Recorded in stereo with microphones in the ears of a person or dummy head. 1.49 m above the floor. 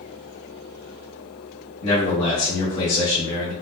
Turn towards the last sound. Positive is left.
turn(degrees=35)  # may be behind; listen again after turning